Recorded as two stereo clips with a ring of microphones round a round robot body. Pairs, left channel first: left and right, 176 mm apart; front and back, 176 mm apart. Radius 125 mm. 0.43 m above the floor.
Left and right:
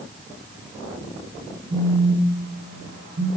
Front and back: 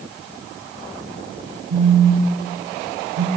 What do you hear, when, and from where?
1.7 s a phone buzzing: 170° right, 1.0 m